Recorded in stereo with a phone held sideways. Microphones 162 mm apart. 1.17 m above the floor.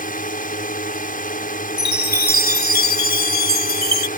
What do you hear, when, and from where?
0.0 s a drone: 60° left (ahead or behind)
1.8 s a chime: 75° left (ahead or behind)